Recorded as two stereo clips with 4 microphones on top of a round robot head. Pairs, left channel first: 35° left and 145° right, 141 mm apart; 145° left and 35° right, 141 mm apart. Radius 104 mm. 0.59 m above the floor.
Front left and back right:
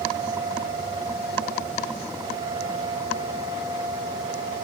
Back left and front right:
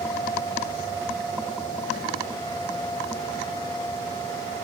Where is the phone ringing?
No phone ringing in this recording.